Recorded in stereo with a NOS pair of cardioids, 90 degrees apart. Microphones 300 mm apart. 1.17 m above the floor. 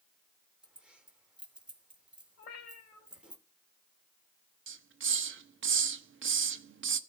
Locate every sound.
0.6 s keys jangling: 5° right, 2.5 m
2.4 s a cat meowing: 55° left, 3 m
4.7 s a hiss: 45° right, 1.2 m